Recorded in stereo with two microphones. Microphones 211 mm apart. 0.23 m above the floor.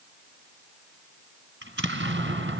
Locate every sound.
1.6 s an explosion: 60° right (ahead or behind), 2 m